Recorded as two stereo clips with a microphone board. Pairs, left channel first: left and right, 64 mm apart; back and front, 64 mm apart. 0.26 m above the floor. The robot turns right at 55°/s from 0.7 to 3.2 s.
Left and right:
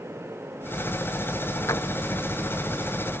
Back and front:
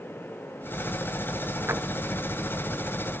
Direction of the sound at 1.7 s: 50° left.